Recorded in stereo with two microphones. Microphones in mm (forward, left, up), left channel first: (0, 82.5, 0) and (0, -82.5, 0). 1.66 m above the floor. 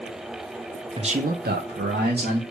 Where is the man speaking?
30° right (ahead or behind), 0.6 m; by 2.4 s 65° right (ahead or behind), 1.4 m.